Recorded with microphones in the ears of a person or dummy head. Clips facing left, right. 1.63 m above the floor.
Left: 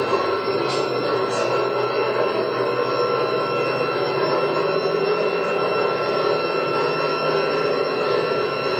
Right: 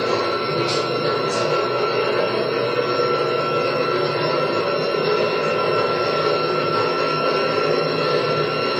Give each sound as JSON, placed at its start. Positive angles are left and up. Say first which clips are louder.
{"t": 0.0, "sound": "a machine running", "louder": "even", "side_deg": -40, "distance_m": 1.8}